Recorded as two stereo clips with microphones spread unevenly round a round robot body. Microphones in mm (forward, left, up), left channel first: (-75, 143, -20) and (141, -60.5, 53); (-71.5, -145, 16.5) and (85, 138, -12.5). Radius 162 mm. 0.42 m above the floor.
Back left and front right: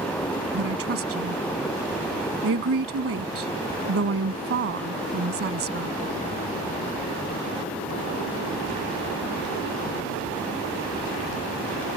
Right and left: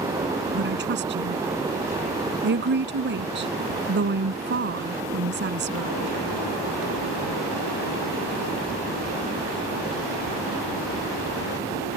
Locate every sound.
0.5 s a woman speaking: 5° left